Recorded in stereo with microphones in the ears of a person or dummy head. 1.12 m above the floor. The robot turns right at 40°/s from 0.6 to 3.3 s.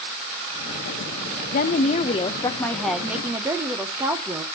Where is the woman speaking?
120° left, 0.5 m; by 4.5 s 170° right, 0.5 m.